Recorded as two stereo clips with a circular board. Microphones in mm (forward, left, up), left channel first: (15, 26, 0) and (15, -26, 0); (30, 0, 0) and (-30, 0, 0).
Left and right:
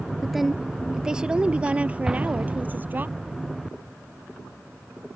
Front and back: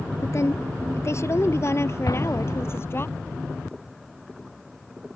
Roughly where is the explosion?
Ahead.